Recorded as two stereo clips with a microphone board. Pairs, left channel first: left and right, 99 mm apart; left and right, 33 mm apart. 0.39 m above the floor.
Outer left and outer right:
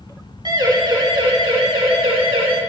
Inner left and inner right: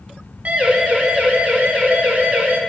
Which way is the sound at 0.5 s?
45° right (ahead or behind).